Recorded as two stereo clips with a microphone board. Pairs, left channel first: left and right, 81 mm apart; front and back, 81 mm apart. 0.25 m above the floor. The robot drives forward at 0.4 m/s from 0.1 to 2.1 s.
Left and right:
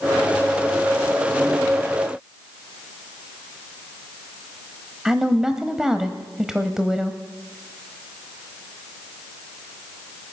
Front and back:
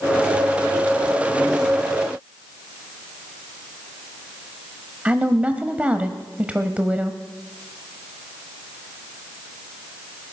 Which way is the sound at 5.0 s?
155° right.